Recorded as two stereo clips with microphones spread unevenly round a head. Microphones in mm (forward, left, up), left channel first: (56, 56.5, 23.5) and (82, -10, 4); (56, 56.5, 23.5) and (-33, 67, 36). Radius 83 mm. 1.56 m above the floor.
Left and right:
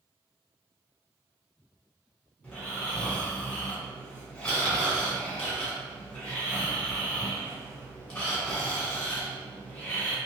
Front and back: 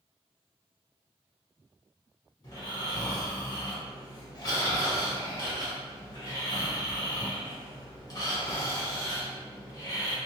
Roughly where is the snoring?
Ahead left.